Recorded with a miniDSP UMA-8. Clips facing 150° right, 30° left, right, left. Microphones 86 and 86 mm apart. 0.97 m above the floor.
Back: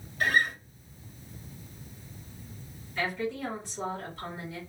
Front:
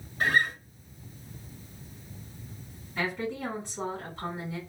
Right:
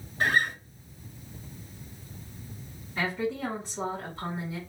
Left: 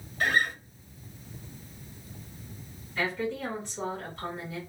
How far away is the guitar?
About 2.0 m.